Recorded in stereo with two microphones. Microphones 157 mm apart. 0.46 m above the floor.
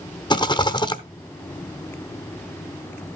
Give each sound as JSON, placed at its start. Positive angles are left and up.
{"t": 0.3, "sound": "a rattle", "side_deg": 25, "distance_m": 0.7}